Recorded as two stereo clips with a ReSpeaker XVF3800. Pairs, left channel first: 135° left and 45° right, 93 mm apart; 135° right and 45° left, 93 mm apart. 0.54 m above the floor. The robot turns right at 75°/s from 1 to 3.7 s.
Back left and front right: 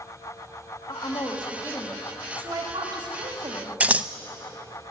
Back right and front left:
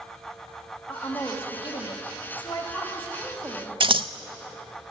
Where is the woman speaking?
140° left, 3.5 m; by 3.8 s 15° right, 3.5 m.